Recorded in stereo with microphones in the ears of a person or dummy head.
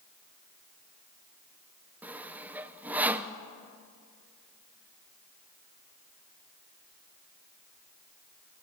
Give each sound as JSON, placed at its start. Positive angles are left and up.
{"t": 2.0, "sound": "sawing", "side_deg": -5, "distance_m": 0.8}